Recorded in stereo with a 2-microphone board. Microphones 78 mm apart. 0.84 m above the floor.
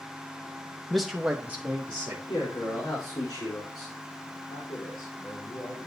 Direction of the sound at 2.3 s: 75° left (ahead or behind).